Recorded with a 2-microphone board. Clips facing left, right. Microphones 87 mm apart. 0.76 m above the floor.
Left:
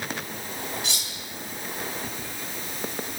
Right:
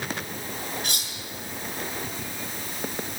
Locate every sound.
0.8 s cutlery clinking: 50° right (ahead or behind), 5.5 m